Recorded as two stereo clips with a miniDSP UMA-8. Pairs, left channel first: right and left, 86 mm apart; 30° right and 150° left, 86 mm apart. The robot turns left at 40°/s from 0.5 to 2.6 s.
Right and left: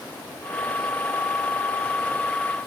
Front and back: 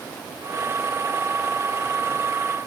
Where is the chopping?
No chopping in this recording.